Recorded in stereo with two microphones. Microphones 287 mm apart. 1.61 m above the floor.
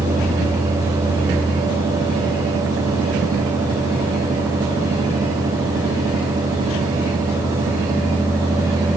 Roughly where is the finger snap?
No finger snap in this recording.